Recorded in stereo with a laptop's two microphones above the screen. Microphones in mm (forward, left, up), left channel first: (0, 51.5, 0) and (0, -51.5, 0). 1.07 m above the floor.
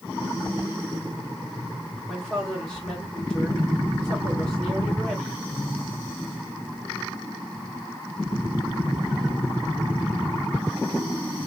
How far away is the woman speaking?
About 1.6 m.